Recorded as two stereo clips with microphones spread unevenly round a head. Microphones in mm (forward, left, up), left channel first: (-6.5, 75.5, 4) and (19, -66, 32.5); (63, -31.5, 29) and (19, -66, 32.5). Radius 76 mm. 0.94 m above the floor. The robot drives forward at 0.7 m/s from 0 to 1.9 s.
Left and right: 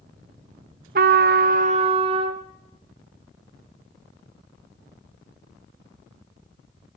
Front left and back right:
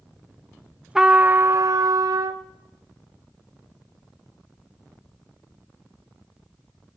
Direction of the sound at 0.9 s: 60° right.